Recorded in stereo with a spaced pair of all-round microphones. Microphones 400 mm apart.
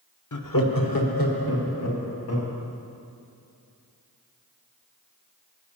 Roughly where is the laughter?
Left.